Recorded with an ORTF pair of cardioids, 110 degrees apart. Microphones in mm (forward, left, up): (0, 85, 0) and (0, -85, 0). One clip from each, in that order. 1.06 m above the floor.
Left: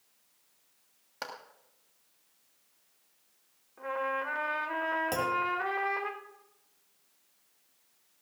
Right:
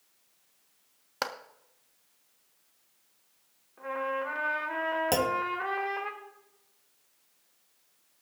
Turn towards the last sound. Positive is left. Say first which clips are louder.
# right 2 dB
turn(degrees=-45)